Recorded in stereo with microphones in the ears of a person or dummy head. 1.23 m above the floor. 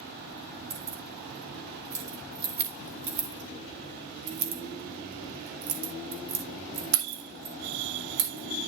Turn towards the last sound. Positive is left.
turn(degrees=-65)  # may be behind; listen again after turning